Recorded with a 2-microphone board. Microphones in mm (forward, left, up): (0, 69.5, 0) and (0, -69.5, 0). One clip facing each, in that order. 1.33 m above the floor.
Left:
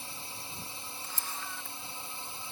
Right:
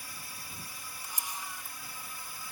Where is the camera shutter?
15° right (ahead or behind).